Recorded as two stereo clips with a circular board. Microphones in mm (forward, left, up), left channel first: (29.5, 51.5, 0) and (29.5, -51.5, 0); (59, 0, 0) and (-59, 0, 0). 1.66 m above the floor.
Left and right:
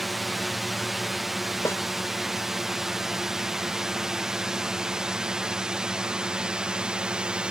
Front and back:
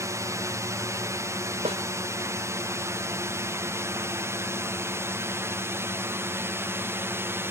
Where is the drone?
Straight behind; by 7.5 s 155° right.